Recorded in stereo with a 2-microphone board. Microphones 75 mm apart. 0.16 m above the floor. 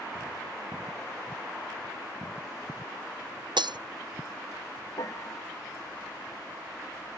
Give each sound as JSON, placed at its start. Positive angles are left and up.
{"t": 3.6, "sound": "breaking glass", "side_deg": -80}
{"t": 5.0, "sound": "a piano", "side_deg": 50}